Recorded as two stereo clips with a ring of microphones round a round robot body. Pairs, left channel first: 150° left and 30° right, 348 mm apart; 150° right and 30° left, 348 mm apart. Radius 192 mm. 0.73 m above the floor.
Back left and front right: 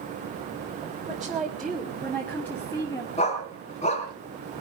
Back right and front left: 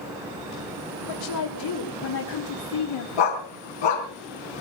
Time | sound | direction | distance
1.0 | a woman speaking | 120° right | 3 m
3.2 | a dog barking | 140° right | 3 m